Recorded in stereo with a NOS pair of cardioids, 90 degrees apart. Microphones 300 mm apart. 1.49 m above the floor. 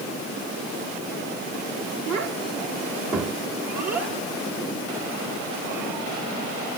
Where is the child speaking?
65° right, 2 m; by 6.8 s 75° right, 7 m.